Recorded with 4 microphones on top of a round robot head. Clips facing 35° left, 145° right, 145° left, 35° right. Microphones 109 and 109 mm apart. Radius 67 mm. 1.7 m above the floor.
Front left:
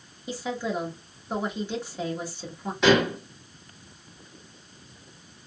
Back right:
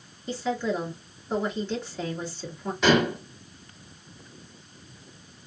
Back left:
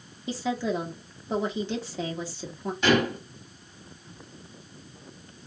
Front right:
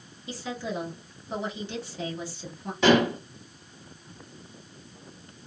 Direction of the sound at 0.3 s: 120° left.